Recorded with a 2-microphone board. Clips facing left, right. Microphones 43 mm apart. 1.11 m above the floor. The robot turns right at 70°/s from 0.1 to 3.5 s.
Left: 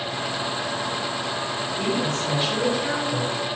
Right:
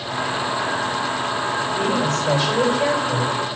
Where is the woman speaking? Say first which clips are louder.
Right 3 dB; 140° right, 5 m; by 3.3 s 25° right, 5 m.